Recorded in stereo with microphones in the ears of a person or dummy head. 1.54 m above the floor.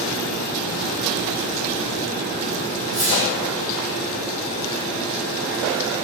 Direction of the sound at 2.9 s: 20° right (ahead or behind).